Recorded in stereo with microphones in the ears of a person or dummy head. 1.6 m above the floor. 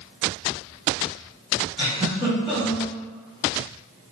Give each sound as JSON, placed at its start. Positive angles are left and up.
{"t": 1.8, "sound": "a giggle", "side_deg": -25, "distance_m": 1.6}